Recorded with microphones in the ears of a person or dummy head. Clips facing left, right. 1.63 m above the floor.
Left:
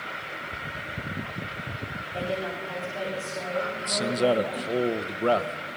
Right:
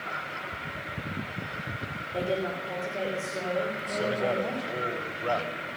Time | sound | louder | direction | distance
2.1 | a woman speaking | right 2 dB | 35° right (ahead or behind) | 5.5 m
3.8 | a man speaking | left 4 dB | 55° left (ahead or behind) | 1.2 m